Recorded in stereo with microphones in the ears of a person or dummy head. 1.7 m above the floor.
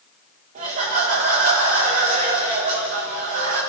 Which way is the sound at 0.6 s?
45° right (ahead or behind).